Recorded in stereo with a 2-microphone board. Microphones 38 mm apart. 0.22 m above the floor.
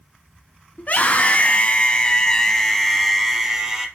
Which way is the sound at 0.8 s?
50° left (ahead or behind).